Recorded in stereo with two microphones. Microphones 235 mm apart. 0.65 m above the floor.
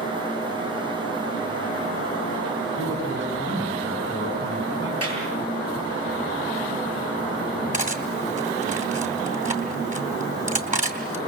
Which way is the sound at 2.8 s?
55° right (ahead or behind).